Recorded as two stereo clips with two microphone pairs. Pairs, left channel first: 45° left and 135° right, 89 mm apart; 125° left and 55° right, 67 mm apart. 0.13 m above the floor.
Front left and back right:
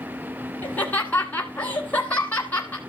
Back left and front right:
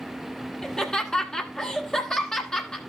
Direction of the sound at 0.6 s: 70° left.